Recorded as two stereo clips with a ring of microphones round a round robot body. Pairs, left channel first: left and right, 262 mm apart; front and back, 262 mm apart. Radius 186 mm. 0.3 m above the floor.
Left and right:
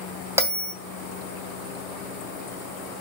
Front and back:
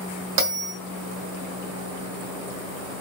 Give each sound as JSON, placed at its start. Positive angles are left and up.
{"t": 0.4, "sound": "a bell", "azimuth_deg": -165, "distance_m": 2.0}